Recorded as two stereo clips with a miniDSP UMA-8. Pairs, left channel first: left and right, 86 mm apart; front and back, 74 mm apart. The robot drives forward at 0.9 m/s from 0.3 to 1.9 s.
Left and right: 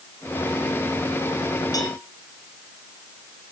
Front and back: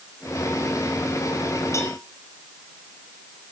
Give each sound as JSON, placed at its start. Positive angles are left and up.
{"t": 1.7, "sound": "a cowbell", "azimuth_deg": 50, "distance_m": 3.5}